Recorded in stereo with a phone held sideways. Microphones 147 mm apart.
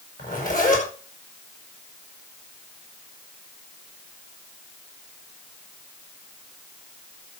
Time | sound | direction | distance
0.2 | a zipper | 65° left (ahead or behind) | 8.5 m